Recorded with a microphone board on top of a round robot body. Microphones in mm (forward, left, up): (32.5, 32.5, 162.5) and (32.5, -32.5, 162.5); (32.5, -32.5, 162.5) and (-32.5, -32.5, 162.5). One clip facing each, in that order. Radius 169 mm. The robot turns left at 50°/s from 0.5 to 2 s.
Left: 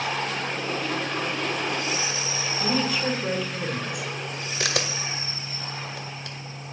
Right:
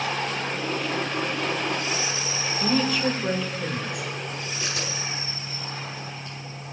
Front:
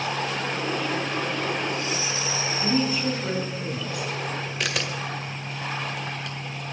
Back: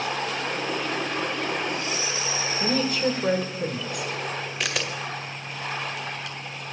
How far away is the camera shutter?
About 2.0 m.